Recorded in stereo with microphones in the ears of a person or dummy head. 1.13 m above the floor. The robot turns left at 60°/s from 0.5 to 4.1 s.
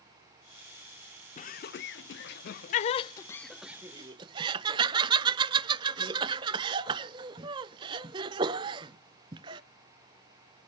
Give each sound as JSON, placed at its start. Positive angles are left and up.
{"t": 1.4, "sound": "laughter", "side_deg": 40, "distance_m": 0.5}